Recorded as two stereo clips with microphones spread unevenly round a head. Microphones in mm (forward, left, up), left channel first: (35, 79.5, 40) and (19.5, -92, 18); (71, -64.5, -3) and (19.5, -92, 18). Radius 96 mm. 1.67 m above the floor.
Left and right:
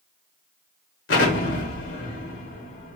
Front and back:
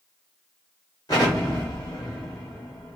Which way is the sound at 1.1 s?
90° left.